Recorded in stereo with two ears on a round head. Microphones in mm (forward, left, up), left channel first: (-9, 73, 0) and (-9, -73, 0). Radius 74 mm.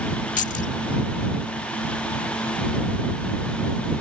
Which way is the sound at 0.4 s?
50° left (ahead or behind).